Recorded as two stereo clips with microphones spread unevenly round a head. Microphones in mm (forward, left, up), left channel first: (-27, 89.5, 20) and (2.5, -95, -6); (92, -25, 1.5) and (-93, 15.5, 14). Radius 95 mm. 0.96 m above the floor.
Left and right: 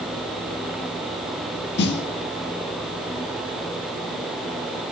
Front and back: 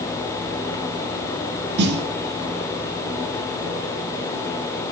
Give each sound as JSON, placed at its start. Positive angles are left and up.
{"t": 1.8, "sound": "a snare drum", "azimuth_deg": 135, "distance_m": 2.5}